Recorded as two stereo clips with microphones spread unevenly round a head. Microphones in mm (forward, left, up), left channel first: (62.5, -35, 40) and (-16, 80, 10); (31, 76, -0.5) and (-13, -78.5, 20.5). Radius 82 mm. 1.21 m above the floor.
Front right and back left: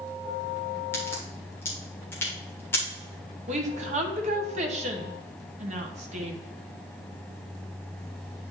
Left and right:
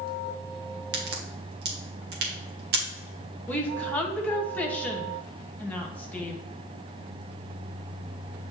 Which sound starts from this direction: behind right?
A crack, at 0.9 s.